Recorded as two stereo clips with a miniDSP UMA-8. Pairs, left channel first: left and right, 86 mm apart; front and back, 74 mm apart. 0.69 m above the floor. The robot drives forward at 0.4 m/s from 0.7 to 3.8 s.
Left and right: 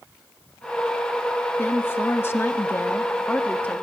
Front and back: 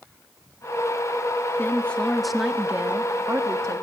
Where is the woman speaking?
40° left, 0.6 m; by 3.8 s 160° left, 0.8 m.